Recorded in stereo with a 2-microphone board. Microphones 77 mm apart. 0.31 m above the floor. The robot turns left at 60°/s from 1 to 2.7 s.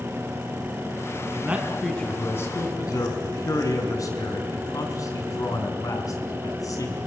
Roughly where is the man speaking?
Behind right.